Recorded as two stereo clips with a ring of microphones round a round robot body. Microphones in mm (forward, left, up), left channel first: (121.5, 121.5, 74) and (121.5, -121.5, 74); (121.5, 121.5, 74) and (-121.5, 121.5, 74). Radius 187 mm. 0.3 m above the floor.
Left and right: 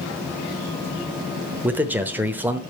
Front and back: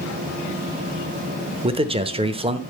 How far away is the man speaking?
About 0.9 m.